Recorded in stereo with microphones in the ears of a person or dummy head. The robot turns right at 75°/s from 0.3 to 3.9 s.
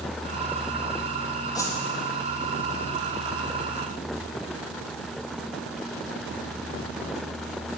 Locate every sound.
1.6 s a whoosh: 15° left (ahead or behind), 0.8 m; by 1.8 s centre (ahead or behind), 0.8 m